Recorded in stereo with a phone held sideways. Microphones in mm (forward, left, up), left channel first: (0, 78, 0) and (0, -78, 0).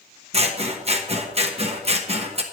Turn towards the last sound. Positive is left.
turn(degrees=-40)  # may be behind; listen again after turning